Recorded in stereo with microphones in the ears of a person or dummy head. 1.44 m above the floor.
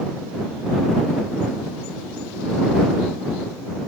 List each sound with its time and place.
Only background noise.